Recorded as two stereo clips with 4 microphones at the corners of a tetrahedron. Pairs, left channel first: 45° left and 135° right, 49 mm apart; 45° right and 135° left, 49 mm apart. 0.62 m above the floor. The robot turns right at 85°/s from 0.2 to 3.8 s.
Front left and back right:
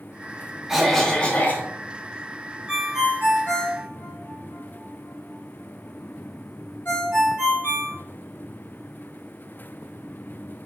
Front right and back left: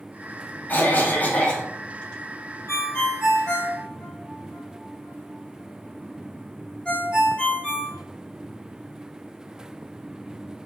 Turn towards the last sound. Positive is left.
turn(degrees=30)